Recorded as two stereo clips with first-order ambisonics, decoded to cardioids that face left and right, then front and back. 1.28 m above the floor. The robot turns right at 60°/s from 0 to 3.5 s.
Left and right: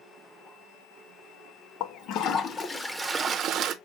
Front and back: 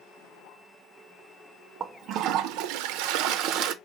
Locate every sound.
1.8 s a toilet flushing: 115° left, 0.6 m; by 3.7 s 145° right, 0.6 m